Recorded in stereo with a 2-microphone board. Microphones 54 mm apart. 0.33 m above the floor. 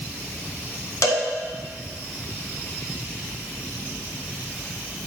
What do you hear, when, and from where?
1.0 s a cowbell: 75° left (ahead or behind), 1.2 m